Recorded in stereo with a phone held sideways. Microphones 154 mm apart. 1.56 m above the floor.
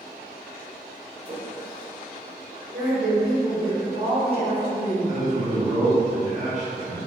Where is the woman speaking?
80° right, 1.7 m.